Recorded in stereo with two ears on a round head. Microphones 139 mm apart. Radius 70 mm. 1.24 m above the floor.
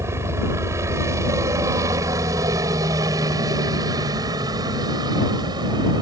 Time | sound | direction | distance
0.0 | a helicopter | 20° right (ahead or behind) | ?